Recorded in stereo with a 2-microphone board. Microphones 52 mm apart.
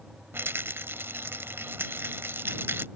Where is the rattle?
50° right (ahead or behind).